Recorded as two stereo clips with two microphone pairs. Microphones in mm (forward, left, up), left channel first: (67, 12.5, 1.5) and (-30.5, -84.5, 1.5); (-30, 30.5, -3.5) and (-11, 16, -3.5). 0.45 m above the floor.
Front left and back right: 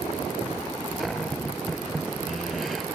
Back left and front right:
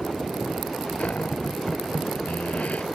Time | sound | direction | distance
1.0 | a cupboard door | 135° left | ?